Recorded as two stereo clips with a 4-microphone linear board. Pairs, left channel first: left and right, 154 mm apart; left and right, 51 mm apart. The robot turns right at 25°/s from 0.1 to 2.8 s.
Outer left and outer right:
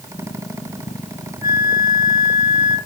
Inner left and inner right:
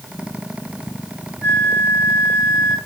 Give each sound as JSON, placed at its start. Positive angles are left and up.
{"t": 1.4, "sound": "a flute", "azimuth_deg": -75, "distance_m": 1.2}